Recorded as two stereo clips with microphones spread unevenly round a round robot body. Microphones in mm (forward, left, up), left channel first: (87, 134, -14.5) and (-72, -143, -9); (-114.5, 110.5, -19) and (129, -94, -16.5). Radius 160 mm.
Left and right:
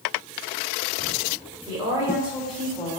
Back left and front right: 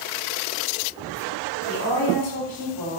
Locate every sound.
1.7 s a woman speaking: 165° left, 3 m; by 3.0 s 135° left, 2 m